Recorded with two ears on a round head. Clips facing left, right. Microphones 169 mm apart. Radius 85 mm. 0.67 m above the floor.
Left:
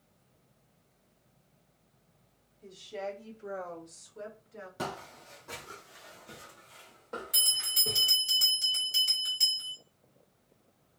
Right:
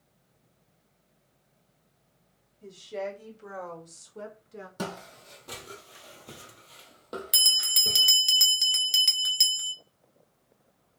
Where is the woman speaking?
70° right (ahead or behind), 3 m; by 4.7 s 45° right (ahead or behind), 1.5 m.